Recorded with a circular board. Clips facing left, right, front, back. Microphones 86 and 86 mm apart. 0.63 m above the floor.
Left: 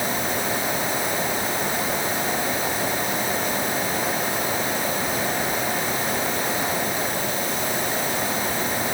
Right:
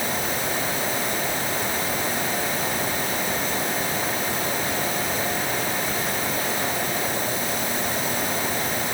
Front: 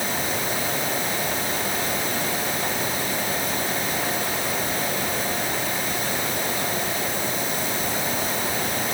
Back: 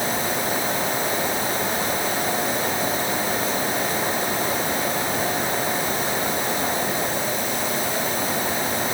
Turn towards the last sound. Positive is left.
No sound to turn to.